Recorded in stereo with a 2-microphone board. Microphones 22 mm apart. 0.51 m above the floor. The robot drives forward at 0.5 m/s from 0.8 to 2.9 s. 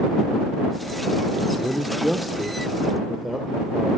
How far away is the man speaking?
About 0.8 m.